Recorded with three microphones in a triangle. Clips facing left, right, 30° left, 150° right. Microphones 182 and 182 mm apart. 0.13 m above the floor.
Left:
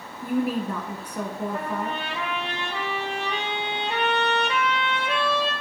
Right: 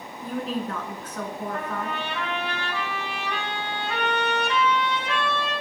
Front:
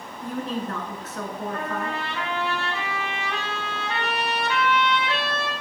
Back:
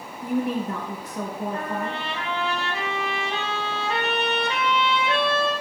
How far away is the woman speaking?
About 1.1 m.